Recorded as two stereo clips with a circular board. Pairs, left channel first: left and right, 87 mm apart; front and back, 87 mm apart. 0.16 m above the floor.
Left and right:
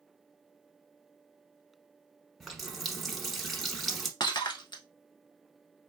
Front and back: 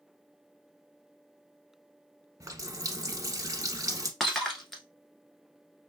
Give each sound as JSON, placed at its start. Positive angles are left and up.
{"t": 2.4, "sound": "a running tap", "azimuth_deg": 180, "distance_m": 0.8}
{"t": 4.2, "sound": "breaking glass", "azimuth_deg": 85, "distance_m": 1.2}